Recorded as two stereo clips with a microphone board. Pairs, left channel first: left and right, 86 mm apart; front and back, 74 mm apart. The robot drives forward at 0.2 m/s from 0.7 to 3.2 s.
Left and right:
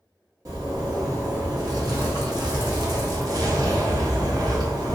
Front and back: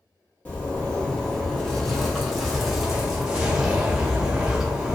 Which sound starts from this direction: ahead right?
A zipper, at 0.5 s.